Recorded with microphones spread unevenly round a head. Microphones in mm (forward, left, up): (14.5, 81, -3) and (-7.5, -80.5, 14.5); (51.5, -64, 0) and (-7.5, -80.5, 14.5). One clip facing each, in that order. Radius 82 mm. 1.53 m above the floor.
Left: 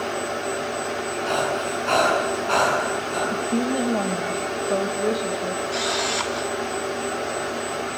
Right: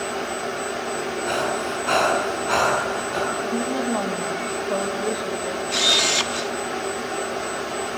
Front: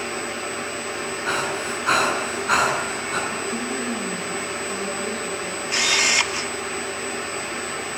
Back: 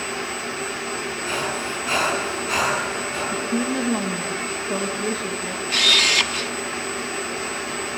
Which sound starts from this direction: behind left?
A woman speaking, at 3.3 s.